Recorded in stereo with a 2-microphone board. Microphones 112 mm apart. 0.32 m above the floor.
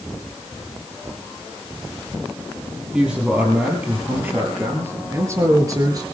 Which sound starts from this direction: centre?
A man speaking, at 2.9 s.